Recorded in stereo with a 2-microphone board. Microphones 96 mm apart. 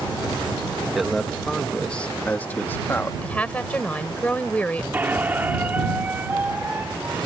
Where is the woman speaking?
15° left (ahead or behind).